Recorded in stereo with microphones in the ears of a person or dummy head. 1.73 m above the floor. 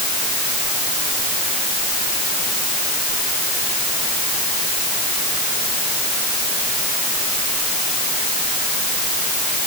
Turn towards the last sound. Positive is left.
No sound to turn to.